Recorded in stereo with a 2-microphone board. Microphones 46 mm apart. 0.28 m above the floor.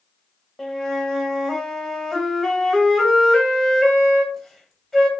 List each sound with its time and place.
0.6 s a flute: 5° left (ahead or behind), 0.8 m